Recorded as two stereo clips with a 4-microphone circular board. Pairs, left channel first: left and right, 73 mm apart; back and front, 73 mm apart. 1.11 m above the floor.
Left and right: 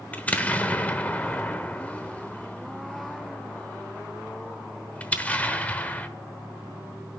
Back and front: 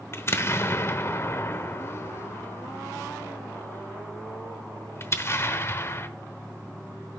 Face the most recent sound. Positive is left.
turn(degrees=145)